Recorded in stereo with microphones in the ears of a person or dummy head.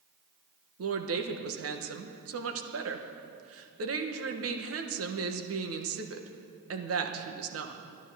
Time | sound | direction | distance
0.8 | a woman speaking | 65° right (ahead or behind) | 1.1 m